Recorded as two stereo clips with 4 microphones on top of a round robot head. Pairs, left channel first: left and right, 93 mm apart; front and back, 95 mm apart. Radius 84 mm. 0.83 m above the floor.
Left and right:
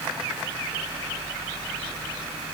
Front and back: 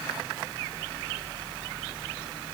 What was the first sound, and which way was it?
Only background noise.